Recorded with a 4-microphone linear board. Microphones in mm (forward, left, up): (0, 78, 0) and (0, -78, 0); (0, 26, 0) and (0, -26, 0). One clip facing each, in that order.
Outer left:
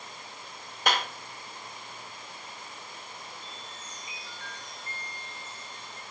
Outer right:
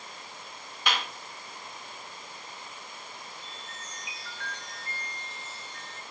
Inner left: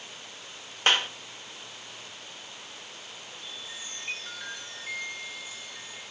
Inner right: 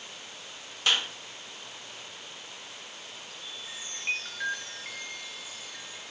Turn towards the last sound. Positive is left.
turn(degrees=-75)  # may be behind; listen again after turning